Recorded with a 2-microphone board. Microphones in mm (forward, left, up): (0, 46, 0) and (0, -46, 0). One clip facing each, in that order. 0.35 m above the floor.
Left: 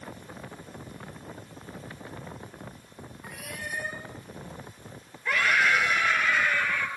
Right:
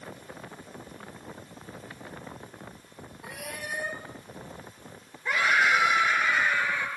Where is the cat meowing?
75° right (ahead or behind), 4.5 m.